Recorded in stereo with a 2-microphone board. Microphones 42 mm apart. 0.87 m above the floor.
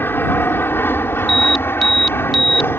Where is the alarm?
5° left (ahead or behind).